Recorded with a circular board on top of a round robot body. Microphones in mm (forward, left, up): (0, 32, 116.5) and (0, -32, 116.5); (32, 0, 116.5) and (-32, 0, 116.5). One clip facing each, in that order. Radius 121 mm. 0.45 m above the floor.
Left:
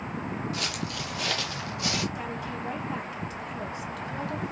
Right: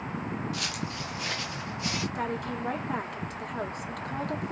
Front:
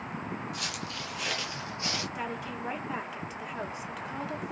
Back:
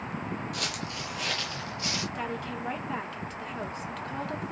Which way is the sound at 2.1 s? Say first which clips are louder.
Right 2 dB, back 2 dB; 80° right.